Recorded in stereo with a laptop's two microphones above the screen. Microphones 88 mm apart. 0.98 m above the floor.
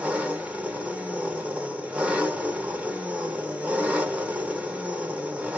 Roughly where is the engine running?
Centre.